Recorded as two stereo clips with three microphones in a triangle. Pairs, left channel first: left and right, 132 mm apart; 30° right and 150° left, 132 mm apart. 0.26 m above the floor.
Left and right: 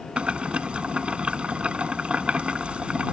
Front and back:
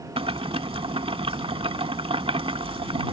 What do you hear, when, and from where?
0.2 s boiling: 170° right